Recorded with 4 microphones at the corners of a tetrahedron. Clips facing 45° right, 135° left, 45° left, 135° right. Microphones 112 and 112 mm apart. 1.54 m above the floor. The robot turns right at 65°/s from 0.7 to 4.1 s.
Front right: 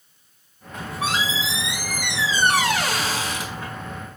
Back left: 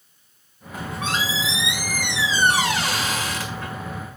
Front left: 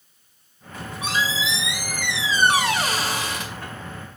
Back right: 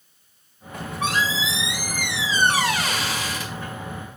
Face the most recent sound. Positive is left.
turn(degrees=70)